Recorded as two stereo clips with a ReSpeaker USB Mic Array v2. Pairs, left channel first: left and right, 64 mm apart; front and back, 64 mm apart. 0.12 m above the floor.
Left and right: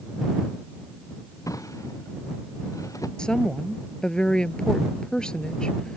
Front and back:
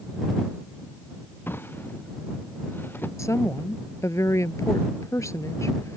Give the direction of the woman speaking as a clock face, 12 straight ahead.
11 o'clock.